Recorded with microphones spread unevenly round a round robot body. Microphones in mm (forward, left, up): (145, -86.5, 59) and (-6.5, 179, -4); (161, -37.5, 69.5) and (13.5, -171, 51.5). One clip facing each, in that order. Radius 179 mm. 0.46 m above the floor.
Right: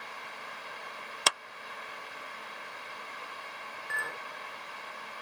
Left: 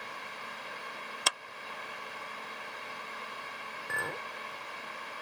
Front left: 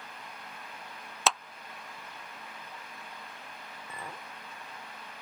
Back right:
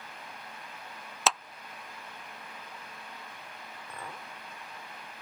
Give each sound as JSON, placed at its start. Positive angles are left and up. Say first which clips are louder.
{"t": 1.3, "sound": "a clap", "louder": "right 4 dB, even", "azimuth_deg": -55}
{"t": 3.9, "sound": "a clink", "louder": "left 6 dB, even", "azimuth_deg": 130}